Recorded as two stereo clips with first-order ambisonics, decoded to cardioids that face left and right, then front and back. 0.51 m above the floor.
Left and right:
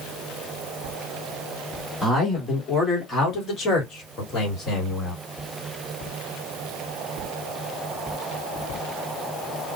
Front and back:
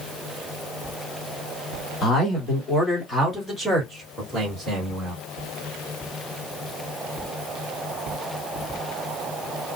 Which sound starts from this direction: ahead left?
A man speaking, at 2.0 s.